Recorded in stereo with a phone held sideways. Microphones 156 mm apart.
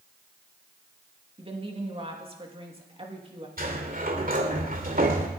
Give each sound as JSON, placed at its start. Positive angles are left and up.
{"t": 1.4, "sound": "a woman speaking", "side_deg": -35, "distance_m": 2.5}
{"t": 3.6, "sound": "a sliding door", "side_deg": -60, "distance_m": 2.0}